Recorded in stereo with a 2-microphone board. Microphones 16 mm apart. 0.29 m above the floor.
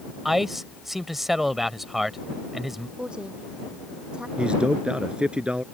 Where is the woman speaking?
60° right (ahead or behind).